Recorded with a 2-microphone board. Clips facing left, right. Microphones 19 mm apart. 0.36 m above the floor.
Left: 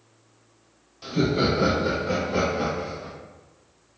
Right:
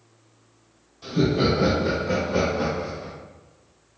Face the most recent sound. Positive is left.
turn(degrees=-15)  # may be behind; listen again after turning